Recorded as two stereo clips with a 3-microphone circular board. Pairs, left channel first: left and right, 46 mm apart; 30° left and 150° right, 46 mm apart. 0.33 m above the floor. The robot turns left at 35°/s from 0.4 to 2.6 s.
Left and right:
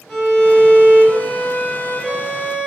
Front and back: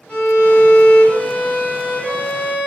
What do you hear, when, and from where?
0.1 s a violin: straight ahead, 1.4 m; by 2.7 s 75° right, 1.4 m